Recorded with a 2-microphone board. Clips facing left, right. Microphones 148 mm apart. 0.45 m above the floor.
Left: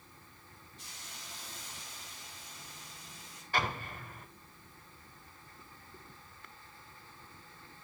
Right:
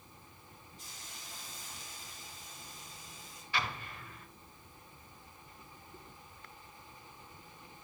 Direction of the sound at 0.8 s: 80° left.